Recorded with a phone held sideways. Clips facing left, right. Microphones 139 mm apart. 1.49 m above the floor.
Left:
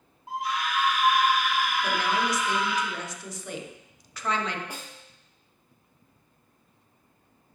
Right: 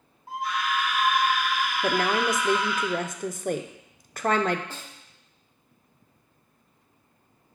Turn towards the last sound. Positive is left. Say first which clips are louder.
# left 1 dB
turn(degrees=15)  # may be behind; listen again after turning